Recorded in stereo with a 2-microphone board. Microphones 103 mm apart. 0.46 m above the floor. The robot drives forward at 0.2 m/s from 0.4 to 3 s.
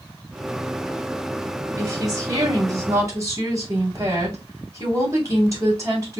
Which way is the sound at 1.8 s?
35° right (ahead or behind).